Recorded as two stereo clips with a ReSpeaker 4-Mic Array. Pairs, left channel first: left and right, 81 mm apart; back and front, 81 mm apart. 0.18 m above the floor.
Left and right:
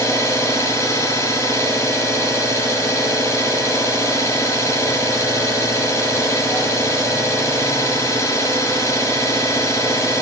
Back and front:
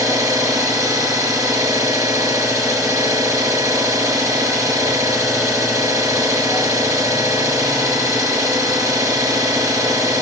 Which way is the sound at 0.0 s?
40° left.